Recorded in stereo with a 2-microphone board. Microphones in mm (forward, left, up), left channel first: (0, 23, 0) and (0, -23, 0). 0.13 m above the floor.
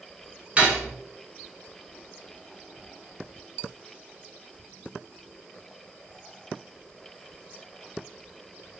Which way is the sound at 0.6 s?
30° right (ahead or behind).